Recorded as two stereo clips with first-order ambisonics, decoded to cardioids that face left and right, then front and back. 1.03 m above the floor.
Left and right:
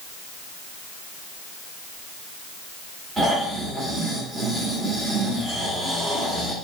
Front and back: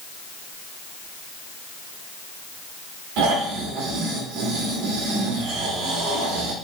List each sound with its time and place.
3.2 s snoring: 165° right, 2.5 m